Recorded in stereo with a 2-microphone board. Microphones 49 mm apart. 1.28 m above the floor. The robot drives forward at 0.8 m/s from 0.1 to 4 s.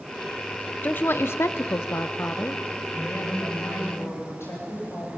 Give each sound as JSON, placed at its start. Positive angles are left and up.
{"t": 0.8, "sound": "a woman speaking", "side_deg": 35, "distance_m": 0.9}
{"t": 2.9, "sound": "a woman speaking", "side_deg": 60, "distance_m": 8.5}